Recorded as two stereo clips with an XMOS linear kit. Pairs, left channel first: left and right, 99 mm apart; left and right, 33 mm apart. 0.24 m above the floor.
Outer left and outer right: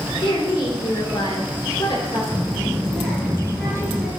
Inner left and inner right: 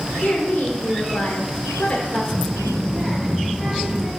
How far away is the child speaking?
About 3.5 m.